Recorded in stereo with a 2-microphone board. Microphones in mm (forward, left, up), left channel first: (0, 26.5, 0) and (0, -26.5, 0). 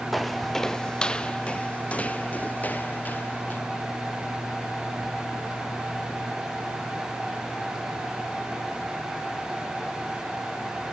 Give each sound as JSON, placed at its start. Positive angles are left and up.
{"t": 0.1, "sound": "footsteps", "side_deg": 0}